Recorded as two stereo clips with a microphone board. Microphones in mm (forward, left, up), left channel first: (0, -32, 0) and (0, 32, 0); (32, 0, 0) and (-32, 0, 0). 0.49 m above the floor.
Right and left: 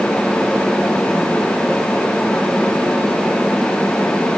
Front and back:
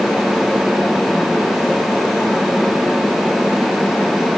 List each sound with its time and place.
Only background noise.